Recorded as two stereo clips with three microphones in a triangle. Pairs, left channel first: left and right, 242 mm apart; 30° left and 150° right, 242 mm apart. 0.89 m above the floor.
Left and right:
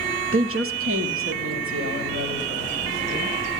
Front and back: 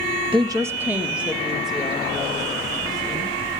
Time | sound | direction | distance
0.3 | a woman speaking | 80° right | 0.6 m